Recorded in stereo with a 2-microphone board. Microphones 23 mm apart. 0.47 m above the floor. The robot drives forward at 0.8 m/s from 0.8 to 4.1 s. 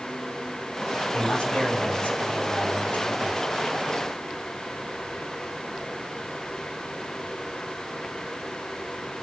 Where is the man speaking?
70° left (ahead or behind), 4 m.